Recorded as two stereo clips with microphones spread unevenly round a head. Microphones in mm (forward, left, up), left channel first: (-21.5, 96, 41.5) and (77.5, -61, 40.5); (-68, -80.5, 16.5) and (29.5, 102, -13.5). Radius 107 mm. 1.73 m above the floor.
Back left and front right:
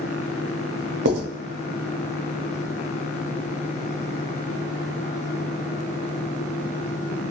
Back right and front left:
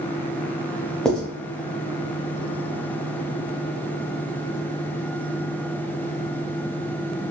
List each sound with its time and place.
1.1 s writing: 35° right, 0.5 m